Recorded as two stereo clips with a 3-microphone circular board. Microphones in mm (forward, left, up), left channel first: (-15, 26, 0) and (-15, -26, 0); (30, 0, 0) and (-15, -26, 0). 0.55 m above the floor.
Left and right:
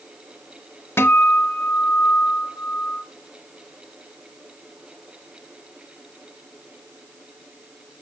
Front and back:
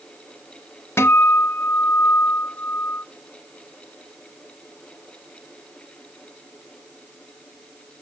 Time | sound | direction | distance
1.0 | a guitar | 60° left | 0.5 m